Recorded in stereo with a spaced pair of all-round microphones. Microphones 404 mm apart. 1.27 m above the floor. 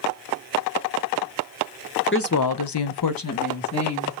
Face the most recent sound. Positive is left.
turn(degrees=35)  # may be behind; listen again after turning